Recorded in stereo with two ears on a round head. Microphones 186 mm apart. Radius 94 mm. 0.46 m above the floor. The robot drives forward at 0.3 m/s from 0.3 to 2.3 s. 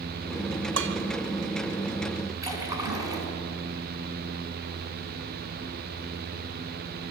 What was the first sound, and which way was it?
Dishes clattering, 75° right (ahead or behind).